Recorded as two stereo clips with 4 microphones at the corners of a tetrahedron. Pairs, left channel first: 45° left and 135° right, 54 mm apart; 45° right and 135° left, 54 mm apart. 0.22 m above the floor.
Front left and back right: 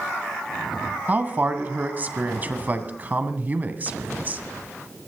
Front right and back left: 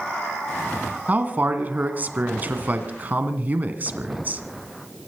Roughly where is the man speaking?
Behind.